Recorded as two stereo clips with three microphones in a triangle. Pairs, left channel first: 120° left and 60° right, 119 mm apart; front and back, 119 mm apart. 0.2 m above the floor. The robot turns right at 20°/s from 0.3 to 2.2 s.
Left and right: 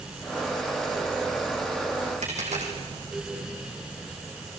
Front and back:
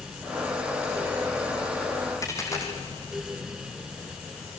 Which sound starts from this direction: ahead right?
A dropped coin, at 2.2 s.